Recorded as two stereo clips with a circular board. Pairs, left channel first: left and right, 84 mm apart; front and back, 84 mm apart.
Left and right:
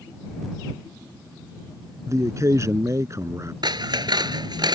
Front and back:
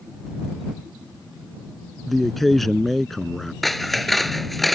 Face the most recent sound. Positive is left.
turn(degrees=-85)